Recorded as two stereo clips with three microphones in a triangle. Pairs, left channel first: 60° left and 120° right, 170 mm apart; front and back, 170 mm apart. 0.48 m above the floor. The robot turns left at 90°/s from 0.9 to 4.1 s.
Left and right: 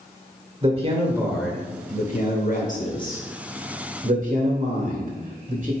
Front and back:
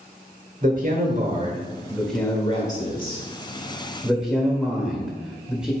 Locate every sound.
0.6 s a man speaking: 165° right, 1.9 m; by 5.7 s 95° right, 1.9 m